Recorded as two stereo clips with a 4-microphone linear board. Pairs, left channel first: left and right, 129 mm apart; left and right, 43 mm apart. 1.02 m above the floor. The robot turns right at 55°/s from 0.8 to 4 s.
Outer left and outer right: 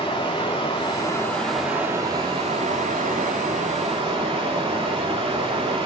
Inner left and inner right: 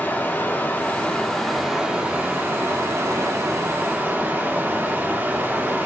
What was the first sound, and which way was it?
Running water, 140° left.